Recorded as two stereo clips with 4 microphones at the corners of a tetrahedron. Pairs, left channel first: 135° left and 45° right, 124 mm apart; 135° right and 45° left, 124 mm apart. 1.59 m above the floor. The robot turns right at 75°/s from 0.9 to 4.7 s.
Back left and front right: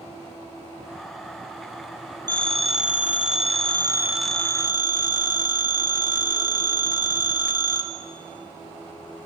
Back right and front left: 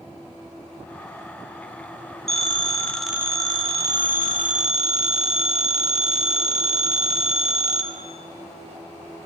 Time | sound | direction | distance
2.3 | a phone ringing | 105° right | 2.5 m